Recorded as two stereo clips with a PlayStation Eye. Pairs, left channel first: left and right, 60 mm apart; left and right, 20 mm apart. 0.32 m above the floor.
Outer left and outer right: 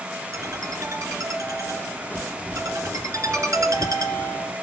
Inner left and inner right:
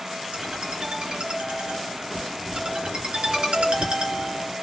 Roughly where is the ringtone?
Right.